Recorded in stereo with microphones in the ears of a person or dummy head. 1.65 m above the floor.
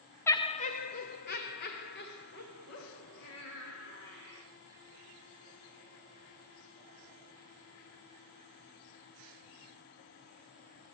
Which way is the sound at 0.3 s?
15° left (ahead or behind).